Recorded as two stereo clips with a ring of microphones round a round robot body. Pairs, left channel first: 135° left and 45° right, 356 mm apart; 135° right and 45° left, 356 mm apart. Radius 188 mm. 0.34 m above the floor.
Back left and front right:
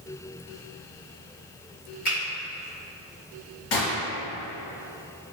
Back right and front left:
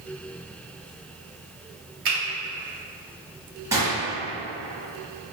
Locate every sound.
2.0 s a finger snap: 70° left, 1.7 m
3.7 s a gunshot: 125° left, 1.2 m